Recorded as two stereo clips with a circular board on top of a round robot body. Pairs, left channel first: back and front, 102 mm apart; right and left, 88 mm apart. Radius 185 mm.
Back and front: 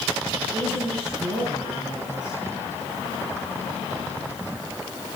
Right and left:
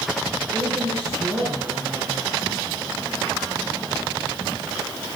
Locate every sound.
0.5 s a woman speaking: 30° left, 7 m